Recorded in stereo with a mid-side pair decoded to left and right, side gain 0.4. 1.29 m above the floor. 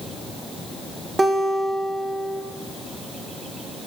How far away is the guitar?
About 1.3 m.